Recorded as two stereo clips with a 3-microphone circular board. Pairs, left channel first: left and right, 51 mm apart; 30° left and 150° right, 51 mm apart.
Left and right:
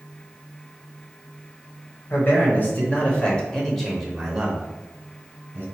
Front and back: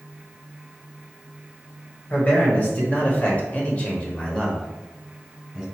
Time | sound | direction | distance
2.1 | a man speaking | 75° left | 1.5 m